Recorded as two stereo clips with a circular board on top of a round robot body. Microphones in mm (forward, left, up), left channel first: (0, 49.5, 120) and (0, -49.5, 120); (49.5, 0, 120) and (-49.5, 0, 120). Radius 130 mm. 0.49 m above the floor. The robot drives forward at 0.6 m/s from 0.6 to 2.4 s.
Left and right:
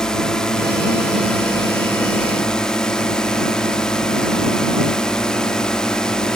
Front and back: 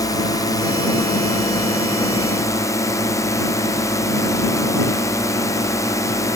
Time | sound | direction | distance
0.0 | a drone | 10° left | ?